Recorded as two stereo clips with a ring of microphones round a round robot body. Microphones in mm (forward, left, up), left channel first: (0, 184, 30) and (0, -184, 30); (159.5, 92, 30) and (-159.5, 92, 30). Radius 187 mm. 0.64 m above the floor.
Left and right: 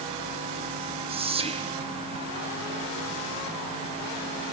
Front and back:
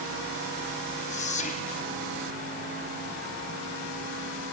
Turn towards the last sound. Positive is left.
turn(degrees=-35)